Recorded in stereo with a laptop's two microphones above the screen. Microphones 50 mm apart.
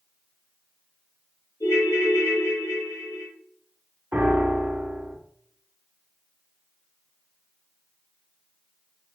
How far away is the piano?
About 0.6 m.